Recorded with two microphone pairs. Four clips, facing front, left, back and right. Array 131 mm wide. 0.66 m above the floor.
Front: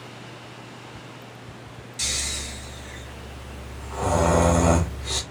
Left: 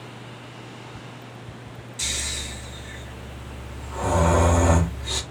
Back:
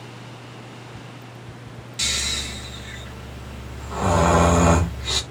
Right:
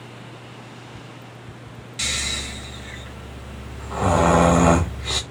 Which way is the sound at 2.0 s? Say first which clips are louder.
Right 5 dB, back 4 dB; 105° right.